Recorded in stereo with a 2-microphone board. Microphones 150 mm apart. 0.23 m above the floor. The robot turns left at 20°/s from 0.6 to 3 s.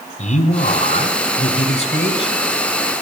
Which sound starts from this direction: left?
A man speaking, at 0.2 s.